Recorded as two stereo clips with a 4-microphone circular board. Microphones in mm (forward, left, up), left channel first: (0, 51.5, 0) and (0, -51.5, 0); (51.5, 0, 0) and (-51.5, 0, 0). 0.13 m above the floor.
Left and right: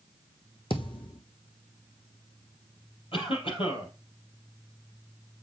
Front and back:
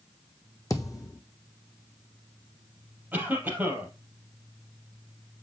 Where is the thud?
55° left, 1.3 m.